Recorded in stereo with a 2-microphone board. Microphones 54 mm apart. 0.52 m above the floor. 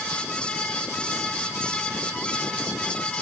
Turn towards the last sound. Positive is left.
No sound to turn to.